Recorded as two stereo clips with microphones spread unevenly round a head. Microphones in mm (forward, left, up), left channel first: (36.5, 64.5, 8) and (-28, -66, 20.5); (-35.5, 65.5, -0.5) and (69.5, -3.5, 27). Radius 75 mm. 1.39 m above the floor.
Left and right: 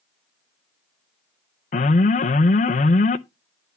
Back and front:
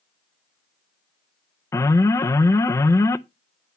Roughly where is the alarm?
Left.